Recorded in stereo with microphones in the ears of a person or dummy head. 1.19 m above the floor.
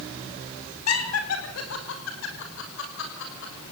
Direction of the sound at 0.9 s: 80° left.